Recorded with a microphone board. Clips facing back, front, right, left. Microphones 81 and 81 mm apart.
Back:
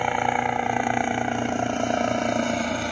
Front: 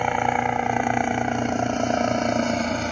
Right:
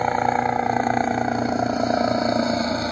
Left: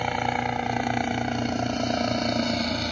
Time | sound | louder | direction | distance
0.0 | a helicopter | front 1 dB, right 6 dB | 80° right | ?